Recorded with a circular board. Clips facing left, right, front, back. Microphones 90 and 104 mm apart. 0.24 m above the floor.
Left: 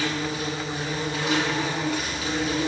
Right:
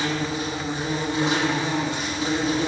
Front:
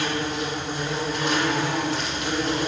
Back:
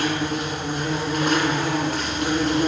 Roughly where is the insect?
Behind right.